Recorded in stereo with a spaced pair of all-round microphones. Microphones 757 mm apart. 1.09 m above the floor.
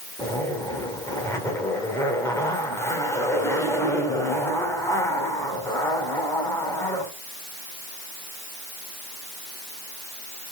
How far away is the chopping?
No chopping in this recording.